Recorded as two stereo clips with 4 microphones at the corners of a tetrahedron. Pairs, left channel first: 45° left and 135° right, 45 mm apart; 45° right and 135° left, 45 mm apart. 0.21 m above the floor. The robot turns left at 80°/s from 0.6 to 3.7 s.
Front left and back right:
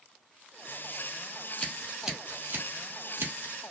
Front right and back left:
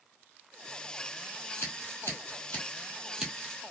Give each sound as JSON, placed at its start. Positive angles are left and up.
{"t": 1.6, "sound": "scissors", "azimuth_deg": -15, "distance_m": 1.8}